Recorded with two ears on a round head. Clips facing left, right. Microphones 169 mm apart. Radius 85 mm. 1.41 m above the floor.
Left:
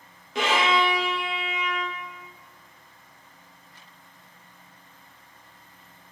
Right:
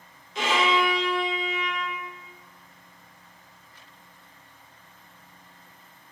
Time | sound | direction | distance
0.3 | a violin | 45° left (ahead or behind) | 0.9 m